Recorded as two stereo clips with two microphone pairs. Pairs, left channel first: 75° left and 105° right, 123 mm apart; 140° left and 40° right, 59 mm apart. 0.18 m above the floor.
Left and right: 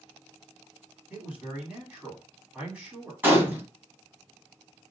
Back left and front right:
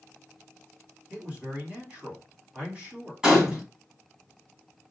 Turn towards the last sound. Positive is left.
turn(degrees=-85)